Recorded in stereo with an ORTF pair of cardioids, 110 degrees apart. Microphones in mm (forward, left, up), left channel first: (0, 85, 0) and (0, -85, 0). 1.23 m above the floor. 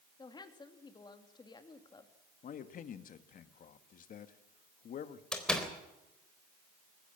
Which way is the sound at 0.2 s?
25° left.